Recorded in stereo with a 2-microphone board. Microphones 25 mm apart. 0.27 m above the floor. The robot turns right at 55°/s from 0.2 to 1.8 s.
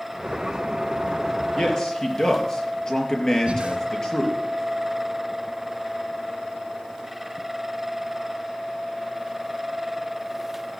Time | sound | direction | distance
1.6 | a man speaking | 45° left (ahead or behind) | 4.5 m
3.5 | breathing | 50° right (ahead or behind) | 2.5 m